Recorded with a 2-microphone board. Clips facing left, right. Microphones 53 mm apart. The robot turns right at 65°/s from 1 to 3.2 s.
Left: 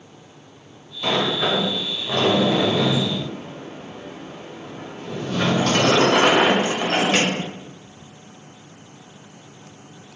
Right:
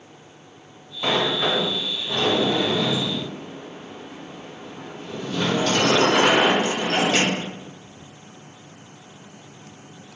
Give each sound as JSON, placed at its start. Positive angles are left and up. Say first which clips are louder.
{"t": 1.0, "sound": "a sliding door", "louder": "left 1 dB", "azimuth_deg": -20, "distance_m": 0.7}